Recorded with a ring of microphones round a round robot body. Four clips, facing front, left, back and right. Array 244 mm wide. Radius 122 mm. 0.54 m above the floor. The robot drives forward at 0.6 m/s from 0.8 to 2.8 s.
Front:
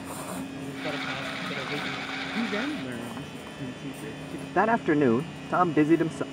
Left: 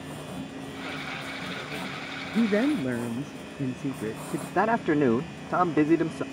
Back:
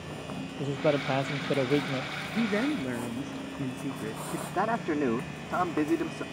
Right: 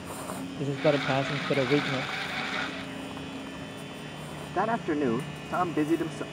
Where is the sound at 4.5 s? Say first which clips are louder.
Left 4 dB, front 6 dB; 40° left.